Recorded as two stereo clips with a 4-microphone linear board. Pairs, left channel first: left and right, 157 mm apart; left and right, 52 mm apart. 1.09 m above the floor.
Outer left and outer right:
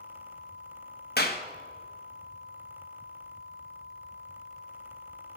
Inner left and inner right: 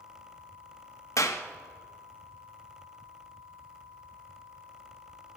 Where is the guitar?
I don't hear a guitar.